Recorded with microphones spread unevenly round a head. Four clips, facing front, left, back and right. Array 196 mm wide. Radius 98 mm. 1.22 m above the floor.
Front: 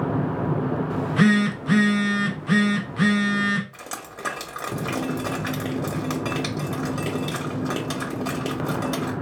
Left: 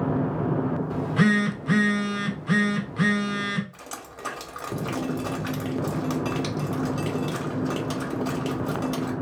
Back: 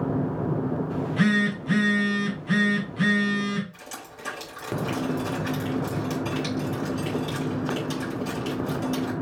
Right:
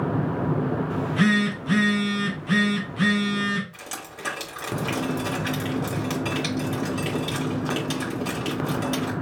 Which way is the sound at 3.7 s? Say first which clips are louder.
Right 1 dB, front 4 dB; straight ahead.